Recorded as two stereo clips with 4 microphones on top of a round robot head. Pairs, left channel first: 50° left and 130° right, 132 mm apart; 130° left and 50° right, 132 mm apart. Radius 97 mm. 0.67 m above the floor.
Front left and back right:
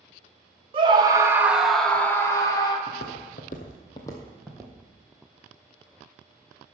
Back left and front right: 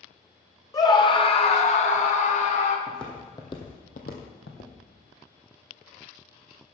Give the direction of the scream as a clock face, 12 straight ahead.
6 o'clock.